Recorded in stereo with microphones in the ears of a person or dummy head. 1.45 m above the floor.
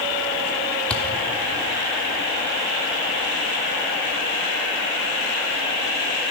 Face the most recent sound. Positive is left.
turn(degrees=5)  # may be behind; listen again after turning